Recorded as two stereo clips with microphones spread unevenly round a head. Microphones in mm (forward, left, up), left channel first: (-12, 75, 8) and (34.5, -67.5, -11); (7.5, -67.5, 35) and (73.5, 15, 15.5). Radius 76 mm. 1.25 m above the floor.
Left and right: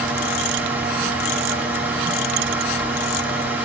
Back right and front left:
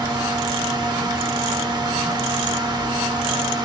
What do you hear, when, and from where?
0.0 s a fan: 5° left, 1.5 m